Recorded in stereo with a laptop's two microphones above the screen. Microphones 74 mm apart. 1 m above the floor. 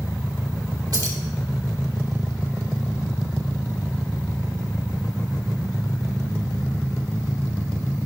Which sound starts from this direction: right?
Keys jangling, at 0.9 s.